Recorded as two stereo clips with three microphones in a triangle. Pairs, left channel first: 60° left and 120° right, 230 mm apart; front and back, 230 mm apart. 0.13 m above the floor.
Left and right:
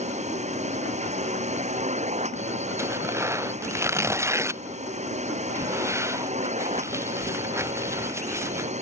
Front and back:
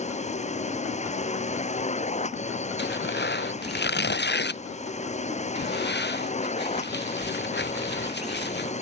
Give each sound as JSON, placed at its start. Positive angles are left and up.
{"t": 0.0, "sound": "a drone", "azimuth_deg": -60}
{"t": 2.8, "sound": "tearing paper", "azimuth_deg": -40}